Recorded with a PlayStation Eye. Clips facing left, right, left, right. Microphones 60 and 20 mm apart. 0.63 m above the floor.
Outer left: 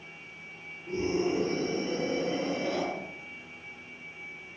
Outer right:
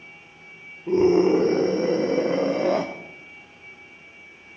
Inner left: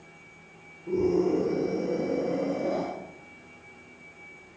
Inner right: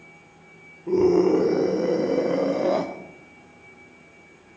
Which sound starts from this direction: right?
A scream, at 0.9 s.